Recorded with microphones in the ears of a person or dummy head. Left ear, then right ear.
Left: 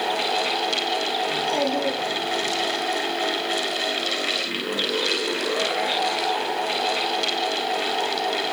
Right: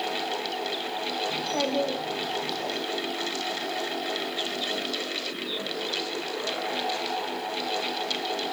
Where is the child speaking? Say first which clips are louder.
Left 5 dB; centre (ahead or behind), 4.5 m; by 2.8 s 10° left (ahead or behind), 5 m.